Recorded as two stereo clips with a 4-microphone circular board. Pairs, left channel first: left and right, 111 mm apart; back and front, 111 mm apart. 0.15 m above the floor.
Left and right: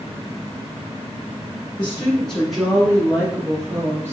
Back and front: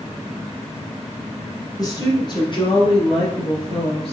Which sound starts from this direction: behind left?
A woman speaking, at 1.8 s.